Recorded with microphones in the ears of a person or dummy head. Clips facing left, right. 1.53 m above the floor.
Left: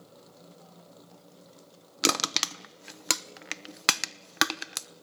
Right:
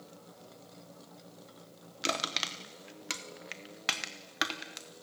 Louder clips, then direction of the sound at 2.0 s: Left 6 dB; 80° left.